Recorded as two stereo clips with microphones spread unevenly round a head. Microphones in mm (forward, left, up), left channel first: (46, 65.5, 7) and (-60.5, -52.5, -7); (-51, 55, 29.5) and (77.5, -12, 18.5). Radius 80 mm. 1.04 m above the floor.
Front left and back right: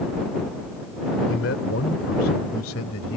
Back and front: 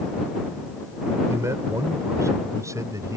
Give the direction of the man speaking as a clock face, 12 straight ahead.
11 o'clock.